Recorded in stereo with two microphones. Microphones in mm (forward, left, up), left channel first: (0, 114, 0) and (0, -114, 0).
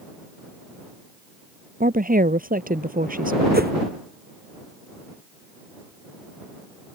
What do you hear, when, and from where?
1.8 s a woman speaking: 40° right (ahead or behind)
3.5 s a whoosh: 40° right (ahead or behind)